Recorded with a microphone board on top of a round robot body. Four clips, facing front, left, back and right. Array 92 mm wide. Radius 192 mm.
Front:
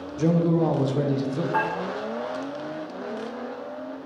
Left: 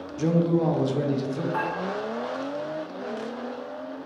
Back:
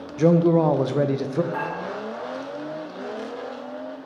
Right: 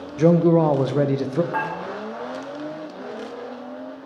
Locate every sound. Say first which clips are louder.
0.2 s a man speaking: right 7 dB, back 4 dB; 120° right, 0.7 m
1.5 s dishes clattering: right 2 dB, front 4 dB; 80° right, 3 m